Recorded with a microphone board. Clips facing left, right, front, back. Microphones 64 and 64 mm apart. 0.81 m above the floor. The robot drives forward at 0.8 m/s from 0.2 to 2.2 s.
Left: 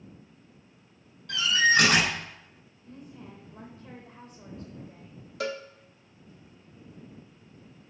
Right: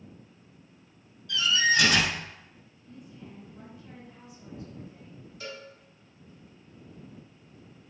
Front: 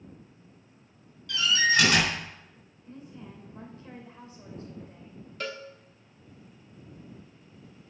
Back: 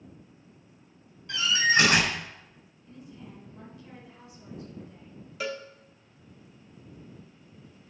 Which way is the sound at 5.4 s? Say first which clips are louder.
Left 9 dB, back 2 dB; 100° left.